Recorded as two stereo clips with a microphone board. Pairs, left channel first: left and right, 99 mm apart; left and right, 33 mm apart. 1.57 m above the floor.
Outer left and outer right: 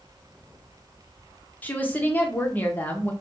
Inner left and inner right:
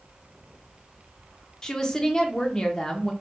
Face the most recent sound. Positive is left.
turn(degrees=20)  # may be behind; listen again after turning